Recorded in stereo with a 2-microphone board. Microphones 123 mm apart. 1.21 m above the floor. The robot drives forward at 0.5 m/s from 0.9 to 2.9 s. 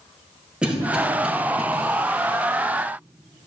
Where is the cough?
10° right (ahead or behind), 1.7 m; by 1.6 s 5° right (ahead or behind), 2 m.